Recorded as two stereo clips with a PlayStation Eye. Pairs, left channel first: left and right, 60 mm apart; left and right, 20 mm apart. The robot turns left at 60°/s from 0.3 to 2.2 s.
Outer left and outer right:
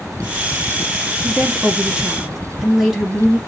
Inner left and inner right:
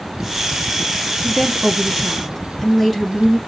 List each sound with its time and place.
1.2 s a woman speaking: 20° right (ahead or behind), 1.1 m; by 3.4 s 5° right (ahead or behind), 1.1 m